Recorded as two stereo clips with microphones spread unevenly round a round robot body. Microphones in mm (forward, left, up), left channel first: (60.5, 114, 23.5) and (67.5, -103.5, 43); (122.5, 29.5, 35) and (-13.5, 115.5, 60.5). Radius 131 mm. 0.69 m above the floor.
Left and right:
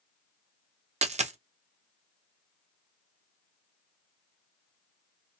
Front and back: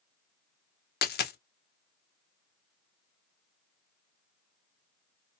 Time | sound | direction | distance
1.0 | a dropped coin | 25° right | 0.6 m